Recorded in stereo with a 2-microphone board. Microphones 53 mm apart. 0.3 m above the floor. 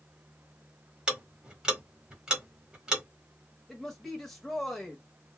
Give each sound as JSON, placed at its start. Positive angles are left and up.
{"t": 1.1, "sound": "ticking", "side_deg": -10, "distance_m": 1.3}
{"t": 3.7, "sound": "a man speaking", "side_deg": 5, "distance_m": 0.9}